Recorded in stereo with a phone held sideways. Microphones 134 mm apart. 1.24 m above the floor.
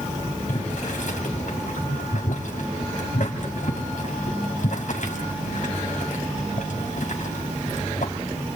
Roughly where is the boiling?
Left.